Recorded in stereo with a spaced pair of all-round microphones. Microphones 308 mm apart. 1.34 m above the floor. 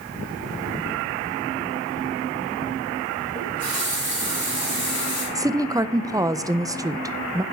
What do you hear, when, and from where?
3.4 s a running tap: 25° left (ahead or behind), 4.5 m
5.3 s a woman speaking: 10° right (ahead or behind), 0.5 m